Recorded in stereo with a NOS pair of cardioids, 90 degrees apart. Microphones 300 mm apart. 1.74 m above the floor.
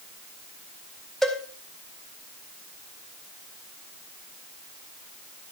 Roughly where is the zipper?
No zipper in this recording.